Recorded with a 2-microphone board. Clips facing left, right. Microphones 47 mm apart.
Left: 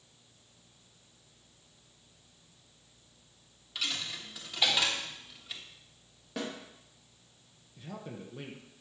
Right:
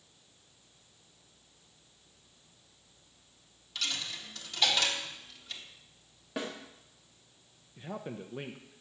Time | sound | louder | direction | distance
3.8 | a dropped coin | even | 10° left (ahead or behind) | 1.1 m
6.4 | a snare drum | even | 10° right (ahead or behind) | 1.7 m
7.8 | a man speaking | right 3 dB | 30° right (ahead or behind) | 0.6 m